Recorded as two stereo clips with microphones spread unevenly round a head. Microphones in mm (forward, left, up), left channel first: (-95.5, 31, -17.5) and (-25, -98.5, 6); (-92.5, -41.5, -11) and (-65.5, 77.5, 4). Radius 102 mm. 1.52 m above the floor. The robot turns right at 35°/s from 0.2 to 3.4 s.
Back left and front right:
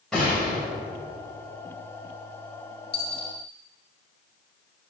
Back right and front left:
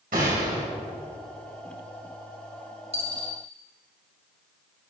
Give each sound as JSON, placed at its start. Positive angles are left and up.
{"t": 0.1, "sound": "a gunshot", "azimuth_deg": 30, "distance_m": 2.5}
{"t": 2.9, "sound": "a dropped coin", "azimuth_deg": 95, "distance_m": 3.0}